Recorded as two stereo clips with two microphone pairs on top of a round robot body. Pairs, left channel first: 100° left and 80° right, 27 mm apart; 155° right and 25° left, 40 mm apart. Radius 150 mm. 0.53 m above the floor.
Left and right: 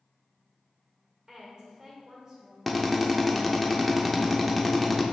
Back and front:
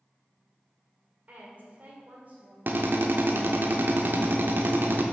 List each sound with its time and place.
1.3 s a woman speaking: 10° right, 1.9 m
2.7 s a drill: 15° left, 1.0 m